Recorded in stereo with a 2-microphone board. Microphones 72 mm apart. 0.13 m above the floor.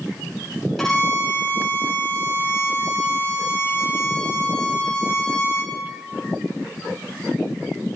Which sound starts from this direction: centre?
A violin, at 0.8 s.